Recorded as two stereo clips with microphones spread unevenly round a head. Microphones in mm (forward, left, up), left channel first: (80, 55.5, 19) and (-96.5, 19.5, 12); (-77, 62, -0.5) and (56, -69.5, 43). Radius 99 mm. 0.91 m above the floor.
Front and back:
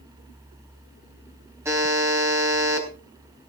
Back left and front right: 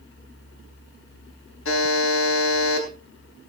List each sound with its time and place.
1.6 s a buzzer: 115° left, 4 m